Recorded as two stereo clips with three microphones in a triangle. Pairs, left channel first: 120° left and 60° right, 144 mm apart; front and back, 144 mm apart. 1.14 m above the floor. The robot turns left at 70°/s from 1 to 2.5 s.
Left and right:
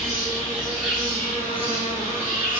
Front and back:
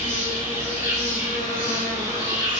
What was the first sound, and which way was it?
An insect, 145° right.